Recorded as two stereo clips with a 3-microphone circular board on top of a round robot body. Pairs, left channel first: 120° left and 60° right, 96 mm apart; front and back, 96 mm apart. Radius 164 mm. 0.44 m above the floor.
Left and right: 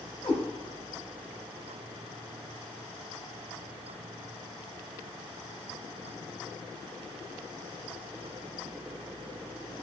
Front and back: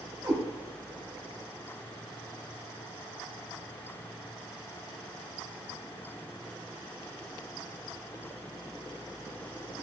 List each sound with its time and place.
0.2 s a cat meowing: 135° left, 0.7 m